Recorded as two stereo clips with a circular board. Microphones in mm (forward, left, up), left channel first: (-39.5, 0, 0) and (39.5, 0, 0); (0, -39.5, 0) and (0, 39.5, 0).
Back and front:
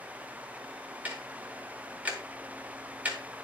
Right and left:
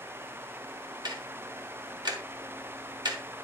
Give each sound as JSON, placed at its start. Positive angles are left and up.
{"t": 1.1, "sound": "ticking", "azimuth_deg": 70, "distance_m": 2.0}